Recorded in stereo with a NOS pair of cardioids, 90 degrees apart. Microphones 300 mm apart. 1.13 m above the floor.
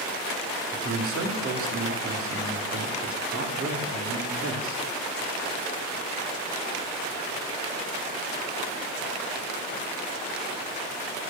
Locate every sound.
0.7 s a man speaking: 45° right, 2.5 m